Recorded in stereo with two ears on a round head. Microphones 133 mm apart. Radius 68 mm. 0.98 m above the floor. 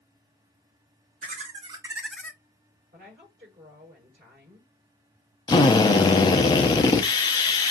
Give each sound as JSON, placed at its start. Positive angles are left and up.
{"t": 1.2, "sound": "laughter", "side_deg": -50, "distance_m": 0.9}
{"t": 2.9, "sound": "a woman speaking", "side_deg": -45, "distance_m": 3.5}
{"t": 5.5, "sound": "a drill", "side_deg": 25, "distance_m": 0.7}